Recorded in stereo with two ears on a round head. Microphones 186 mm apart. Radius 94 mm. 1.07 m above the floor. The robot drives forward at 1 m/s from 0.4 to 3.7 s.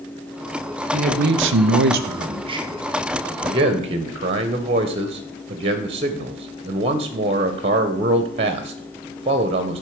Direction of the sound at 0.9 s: 30° right (ahead or behind).